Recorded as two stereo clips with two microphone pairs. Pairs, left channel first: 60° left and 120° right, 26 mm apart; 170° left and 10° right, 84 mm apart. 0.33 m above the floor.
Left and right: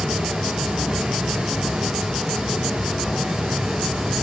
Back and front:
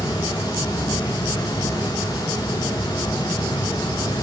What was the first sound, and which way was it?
Running water, 160° right.